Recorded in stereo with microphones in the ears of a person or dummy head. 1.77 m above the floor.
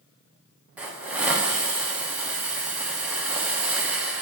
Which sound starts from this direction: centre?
A hiss, at 0.8 s.